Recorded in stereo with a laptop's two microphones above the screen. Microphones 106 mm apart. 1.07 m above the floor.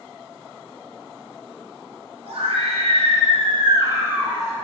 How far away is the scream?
About 2.5 m.